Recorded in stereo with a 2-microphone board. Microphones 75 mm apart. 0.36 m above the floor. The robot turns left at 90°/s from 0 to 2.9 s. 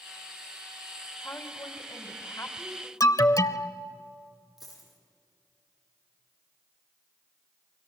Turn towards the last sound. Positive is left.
turn(degrees=0)  # may be behind; listen again after turning